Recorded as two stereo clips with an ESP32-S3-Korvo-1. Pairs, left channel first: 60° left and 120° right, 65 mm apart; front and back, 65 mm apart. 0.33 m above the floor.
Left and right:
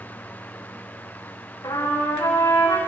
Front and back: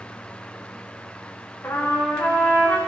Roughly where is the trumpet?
Ahead left.